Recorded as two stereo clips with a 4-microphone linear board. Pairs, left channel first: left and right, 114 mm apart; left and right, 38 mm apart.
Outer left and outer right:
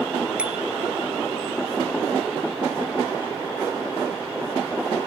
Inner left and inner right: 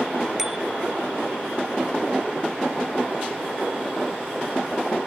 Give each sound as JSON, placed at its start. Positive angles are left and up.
{"t": 0.4, "sound": "a bicycle bell", "side_deg": -10}